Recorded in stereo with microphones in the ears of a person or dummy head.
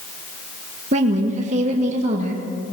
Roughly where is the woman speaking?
Right.